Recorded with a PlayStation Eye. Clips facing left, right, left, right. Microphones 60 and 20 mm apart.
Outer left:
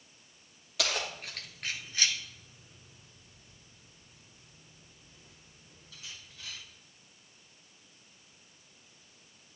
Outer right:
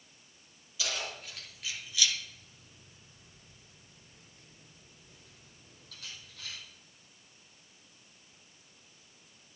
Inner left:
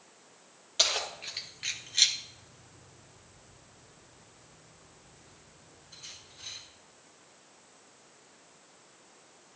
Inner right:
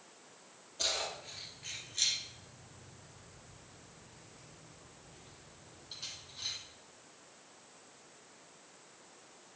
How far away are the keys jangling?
About 2 m.